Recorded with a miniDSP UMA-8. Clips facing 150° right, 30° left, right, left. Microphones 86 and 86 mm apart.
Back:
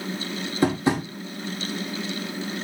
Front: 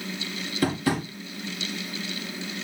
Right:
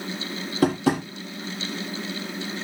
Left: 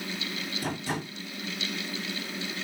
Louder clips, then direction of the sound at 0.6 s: Back 3 dB, right 13 dB; 85° right.